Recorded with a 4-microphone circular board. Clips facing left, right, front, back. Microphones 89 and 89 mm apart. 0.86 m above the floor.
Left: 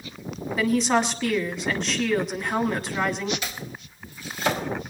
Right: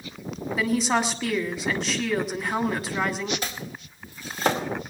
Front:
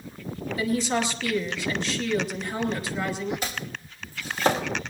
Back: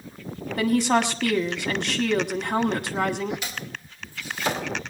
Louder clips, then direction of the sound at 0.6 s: Left 2 dB, back 5 dB; 175° right.